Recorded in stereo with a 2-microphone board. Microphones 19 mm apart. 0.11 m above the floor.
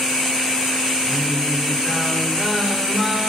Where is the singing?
Centre (ahead or behind), 5 m.